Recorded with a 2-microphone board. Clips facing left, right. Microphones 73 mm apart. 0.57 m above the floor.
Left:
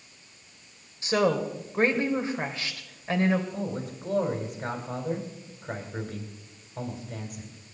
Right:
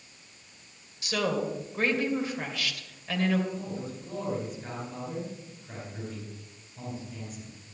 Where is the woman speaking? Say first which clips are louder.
Left 5 dB; 30° left (ahead or behind), 2 m.